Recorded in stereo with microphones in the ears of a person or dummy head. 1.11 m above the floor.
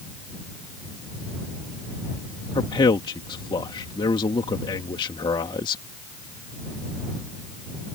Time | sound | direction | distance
2.5 | a man speaking | 25° left (ahead or behind) | ?